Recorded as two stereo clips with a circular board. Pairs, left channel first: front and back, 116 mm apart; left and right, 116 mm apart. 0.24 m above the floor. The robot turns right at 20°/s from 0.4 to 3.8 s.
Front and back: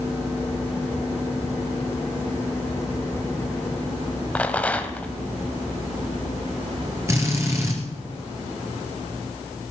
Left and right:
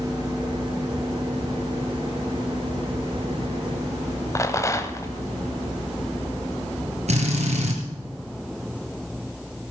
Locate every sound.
4.3 s a rattle: 65° left, 1.3 m
7.1 s a drill: 115° right, 3.5 m